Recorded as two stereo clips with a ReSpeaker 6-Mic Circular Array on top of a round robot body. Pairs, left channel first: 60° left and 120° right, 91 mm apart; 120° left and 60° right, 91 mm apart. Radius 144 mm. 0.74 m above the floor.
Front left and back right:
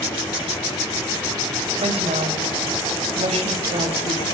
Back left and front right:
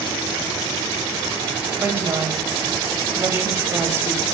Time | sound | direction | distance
1.8 | a woman speaking | 125° right | 3.5 m